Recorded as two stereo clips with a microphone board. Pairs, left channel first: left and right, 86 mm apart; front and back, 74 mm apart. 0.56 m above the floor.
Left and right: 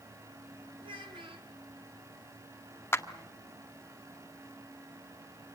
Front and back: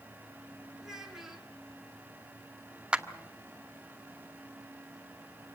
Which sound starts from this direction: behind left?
A clap, at 2.9 s.